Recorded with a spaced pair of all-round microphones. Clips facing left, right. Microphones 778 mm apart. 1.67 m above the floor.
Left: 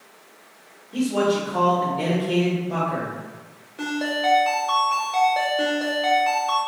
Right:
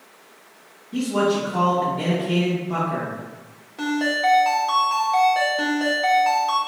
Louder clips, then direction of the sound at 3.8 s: Right 3 dB; 35° right (ahead or behind).